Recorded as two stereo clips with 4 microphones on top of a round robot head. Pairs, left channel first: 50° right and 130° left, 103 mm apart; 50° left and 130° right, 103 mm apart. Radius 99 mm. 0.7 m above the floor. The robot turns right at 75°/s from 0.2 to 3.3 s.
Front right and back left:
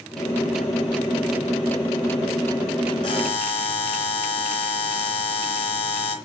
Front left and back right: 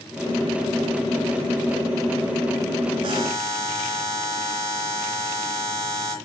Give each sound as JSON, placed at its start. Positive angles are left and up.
{"t": 3.0, "sound": "a buzzer", "azimuth_deg": -90, "distance_m": 3.5}